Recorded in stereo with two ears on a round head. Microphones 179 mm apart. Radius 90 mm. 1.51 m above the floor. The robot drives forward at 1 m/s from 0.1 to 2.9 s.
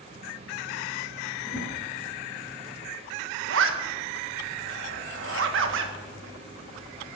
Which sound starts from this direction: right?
A zipper, at 3.5 s.